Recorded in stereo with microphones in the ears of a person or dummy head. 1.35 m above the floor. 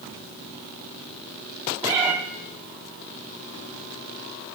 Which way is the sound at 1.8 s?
15° right (ahead or behind).